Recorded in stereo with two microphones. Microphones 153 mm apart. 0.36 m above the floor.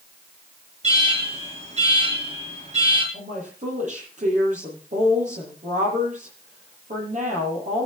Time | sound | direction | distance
0.8 | an alarm | 45° right (ahead or behind) | 8 m
3.1 | a woman speaking | 50° right (ahead or behind) | 9 m